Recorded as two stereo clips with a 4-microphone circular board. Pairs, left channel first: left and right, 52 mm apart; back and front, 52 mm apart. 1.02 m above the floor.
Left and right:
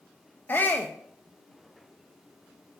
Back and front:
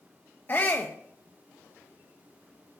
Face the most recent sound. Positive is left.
turn(degrees=135)